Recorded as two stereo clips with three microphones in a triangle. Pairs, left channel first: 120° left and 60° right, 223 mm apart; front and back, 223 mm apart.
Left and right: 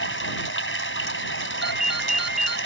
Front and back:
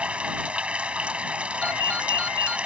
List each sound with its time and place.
0.0 s running water: 95° left
1.6 s a ringtone: 30° left